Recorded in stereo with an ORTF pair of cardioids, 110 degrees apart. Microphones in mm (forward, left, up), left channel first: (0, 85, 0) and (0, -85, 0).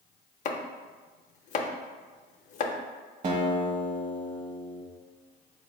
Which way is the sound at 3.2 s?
45° right.